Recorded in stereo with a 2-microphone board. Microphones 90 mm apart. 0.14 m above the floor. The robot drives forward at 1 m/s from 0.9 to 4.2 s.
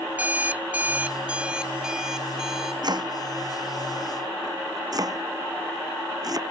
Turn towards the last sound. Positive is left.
turn(degrees=-45)  # may be behind; listen again after turning